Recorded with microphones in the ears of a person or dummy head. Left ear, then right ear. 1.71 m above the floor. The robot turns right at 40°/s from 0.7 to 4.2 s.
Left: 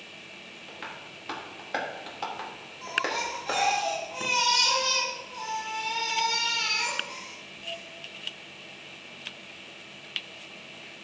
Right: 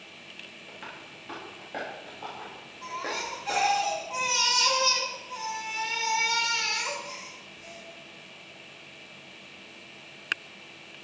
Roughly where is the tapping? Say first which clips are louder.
Left 2 dB; centre.